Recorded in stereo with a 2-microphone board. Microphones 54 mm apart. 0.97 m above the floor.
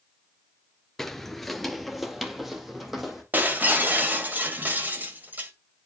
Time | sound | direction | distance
1.0 | footsteps | 5° left (ahead or behind) | 0.9 m
3.3 | breaking glass | 35° right (ahead or behind) | 2.5 m